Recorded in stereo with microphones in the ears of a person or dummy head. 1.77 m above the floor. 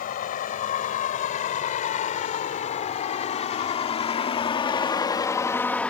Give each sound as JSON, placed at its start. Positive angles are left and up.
{"t": 0.0, "sound": "a vehicle", "side_deg": 45}